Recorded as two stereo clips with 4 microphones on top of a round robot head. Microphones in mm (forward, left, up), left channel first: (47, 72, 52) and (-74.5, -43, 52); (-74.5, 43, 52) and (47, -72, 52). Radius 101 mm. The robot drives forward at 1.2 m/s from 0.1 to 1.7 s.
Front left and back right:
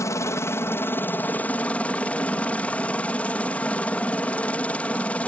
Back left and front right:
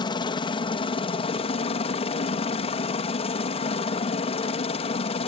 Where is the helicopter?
100° left; by 5.3 s 120° left.